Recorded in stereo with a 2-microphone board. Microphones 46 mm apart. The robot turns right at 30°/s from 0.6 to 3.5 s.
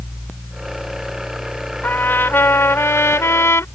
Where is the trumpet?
45° left; by 3.6 s 95° left.